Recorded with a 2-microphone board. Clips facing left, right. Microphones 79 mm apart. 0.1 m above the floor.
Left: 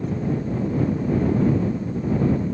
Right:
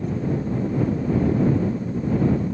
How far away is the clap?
I don't hear a clap.